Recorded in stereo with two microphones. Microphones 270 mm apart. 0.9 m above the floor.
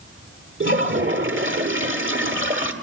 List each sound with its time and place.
0.6 s a toilet flushing: 45° right (ahead or behind), 1.3 m